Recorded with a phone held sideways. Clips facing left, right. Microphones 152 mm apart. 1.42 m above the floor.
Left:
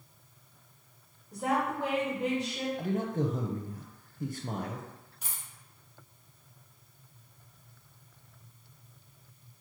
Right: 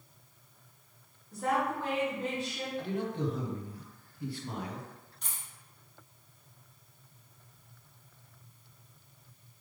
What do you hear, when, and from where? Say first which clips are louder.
1.3 s a woman speaking: left 1 dB; 15° left (ahead or behind), 0.8 m
2.8 s a man speaking: left 2 dB; 45° left (ahead or behind), 0.6 m
5.2 s a dropped coin: left 1 dB; 5° left (ahead or behind), 0.9 m